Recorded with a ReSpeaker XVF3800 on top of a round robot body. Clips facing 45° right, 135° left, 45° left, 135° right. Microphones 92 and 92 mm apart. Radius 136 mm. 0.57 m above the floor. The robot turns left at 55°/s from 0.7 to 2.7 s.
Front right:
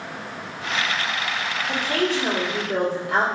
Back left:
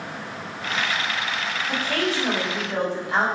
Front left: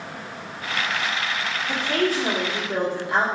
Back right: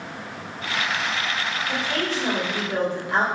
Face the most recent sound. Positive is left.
turn(degrees=-15)